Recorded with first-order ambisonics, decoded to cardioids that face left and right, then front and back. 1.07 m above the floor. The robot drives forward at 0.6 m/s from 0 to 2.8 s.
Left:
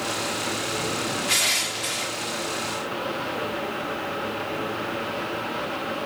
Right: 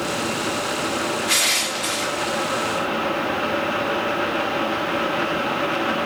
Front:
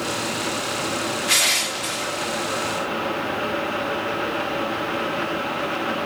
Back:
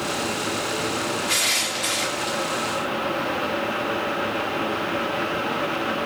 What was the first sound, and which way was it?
Crushing, 25° right.